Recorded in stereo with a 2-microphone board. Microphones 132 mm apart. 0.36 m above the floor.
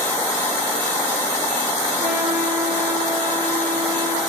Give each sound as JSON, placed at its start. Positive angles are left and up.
{"t": 2.0, "sound": "a trumpet", "side_deg": -85, "distance_m": 8.0}